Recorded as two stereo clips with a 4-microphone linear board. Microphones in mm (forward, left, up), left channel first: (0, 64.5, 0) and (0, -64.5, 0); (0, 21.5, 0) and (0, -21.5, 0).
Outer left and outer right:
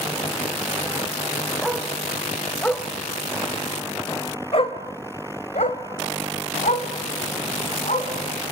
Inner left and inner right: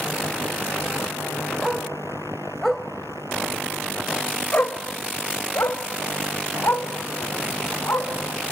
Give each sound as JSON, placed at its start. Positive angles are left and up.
{"t": 1.6, "sound": "a dog barking", "side_deg": -5, "distance_m": 3.0}